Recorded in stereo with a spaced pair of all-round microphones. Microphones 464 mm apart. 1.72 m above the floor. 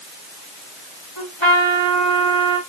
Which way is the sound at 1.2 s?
70° left (ahead or behind).